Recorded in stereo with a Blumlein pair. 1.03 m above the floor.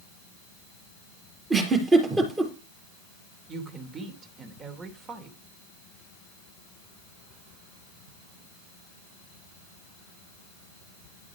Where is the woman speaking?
25° right, 3 m.